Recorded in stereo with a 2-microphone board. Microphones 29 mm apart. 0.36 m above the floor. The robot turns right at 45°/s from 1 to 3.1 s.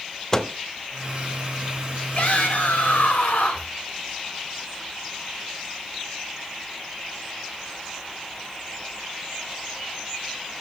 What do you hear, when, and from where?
0.3 s a microwave: 20° left (ahead or behind), 0.6 m
2.1 s a shout: 50° left, 4.5 m; by 3.7 s 95° left, 4.5 m